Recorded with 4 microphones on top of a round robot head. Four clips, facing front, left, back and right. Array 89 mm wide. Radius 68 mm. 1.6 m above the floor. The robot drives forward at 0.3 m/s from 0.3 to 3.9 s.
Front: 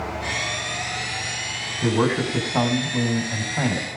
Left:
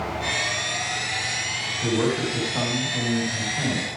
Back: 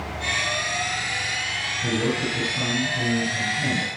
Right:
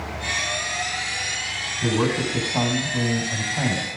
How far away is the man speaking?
About 5 m.